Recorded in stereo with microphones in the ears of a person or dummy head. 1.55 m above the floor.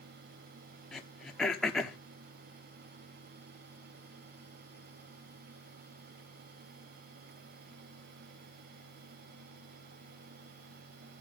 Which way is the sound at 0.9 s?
Centre (ahead or behind).